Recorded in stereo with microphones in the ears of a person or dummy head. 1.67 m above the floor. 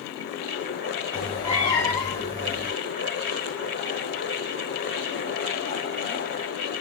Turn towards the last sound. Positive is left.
turn(degrees=30)  # may be behind; listen again after turning